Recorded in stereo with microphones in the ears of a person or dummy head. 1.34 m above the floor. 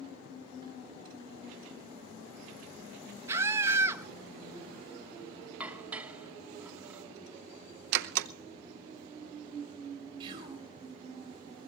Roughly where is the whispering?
Right.